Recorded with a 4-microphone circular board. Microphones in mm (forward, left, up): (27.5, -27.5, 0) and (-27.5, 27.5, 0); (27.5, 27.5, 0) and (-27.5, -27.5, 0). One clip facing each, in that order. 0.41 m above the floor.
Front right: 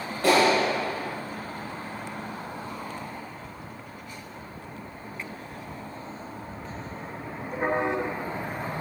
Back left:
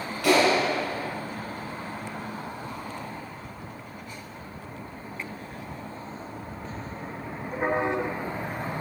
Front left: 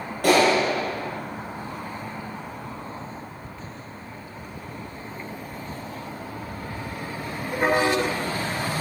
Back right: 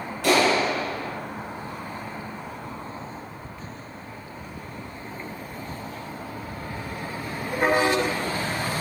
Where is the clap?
10° left, 6.5 m.